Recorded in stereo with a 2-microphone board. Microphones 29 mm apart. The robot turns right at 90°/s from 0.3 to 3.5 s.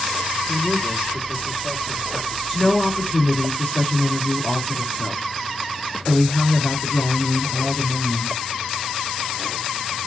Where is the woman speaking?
Straight ahead, 4 m; by 8.4 s 90° left, 4 m.